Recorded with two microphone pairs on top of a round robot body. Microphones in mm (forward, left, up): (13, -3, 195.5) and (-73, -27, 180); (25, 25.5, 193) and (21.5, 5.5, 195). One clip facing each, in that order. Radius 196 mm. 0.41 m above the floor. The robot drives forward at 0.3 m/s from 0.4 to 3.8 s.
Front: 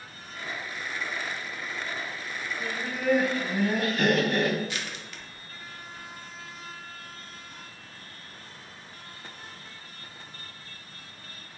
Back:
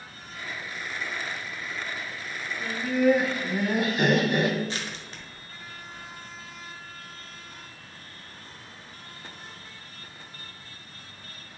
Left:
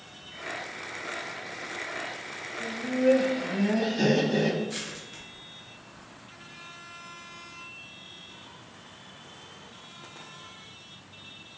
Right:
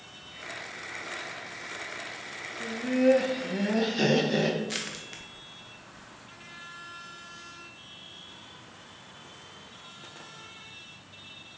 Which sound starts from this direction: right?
Laughter, at 2.6 s.